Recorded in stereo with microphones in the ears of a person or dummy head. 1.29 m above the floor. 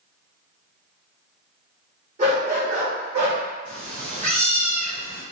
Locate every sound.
2.2 s a dog barking: 40° right (ahead or behind), 1.5 m; by 3.4 s 65° right (ahead or behind), 1.7 m
3.6 s a cat meowing: 50° right (ahead or behind), 1.0 m